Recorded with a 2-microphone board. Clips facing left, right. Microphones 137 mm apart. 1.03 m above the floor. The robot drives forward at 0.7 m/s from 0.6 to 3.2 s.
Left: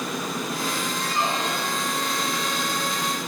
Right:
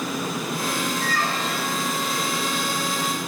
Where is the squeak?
25° left (ahead or behind), 0.7 m; by 1.9 s 15° left (ahead or behind), 1.3 m.